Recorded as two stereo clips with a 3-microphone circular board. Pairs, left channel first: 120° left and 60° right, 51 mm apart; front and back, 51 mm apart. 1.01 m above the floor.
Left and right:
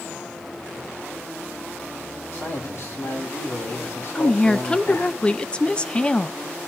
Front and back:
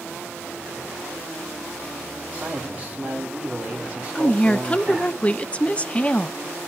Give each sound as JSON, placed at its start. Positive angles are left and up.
{"t": 2.3, "sound": "a man speaking", "azimuth_deg": 125, "distance_m": 2.5}
{"t": 4.2, "sound": "a woman speaking", "azimuth_deg": 60, "distance_m": 0.5}